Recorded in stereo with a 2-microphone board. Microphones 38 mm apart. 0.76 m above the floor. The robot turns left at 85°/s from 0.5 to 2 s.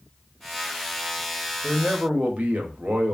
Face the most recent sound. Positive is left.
turn(degrees=-60)